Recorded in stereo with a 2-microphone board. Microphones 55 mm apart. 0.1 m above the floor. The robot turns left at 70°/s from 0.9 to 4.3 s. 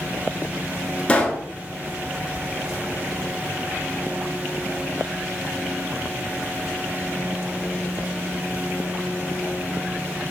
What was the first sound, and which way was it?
A pop, 20° left (ahead or behind).